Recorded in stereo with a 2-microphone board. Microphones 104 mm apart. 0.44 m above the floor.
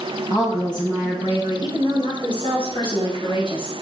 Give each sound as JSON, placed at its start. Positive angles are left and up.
{"t": 0.3, "sound": "a woman speaking", "side_deg": 45, "distance_m": 4.5}